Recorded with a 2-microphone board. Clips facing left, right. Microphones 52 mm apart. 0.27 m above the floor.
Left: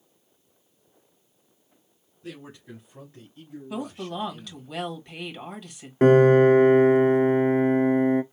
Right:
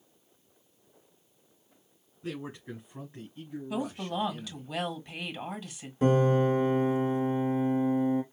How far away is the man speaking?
About 2.5 m.